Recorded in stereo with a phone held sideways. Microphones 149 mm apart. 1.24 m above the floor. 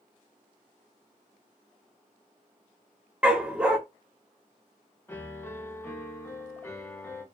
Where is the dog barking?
5° right (ahead or behind), 0.6 m.